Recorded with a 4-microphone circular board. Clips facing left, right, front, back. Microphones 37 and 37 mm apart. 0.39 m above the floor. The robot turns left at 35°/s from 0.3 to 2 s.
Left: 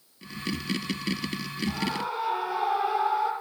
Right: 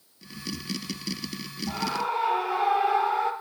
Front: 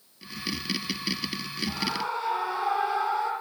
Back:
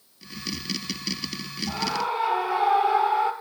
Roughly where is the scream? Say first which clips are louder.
Right 3 dB, back 4 dB; right.